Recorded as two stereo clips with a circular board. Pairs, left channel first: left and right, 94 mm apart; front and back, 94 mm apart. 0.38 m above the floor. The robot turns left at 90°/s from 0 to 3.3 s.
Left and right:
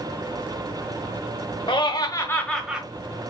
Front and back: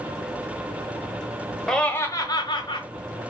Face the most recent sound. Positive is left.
turn(degrees=-60)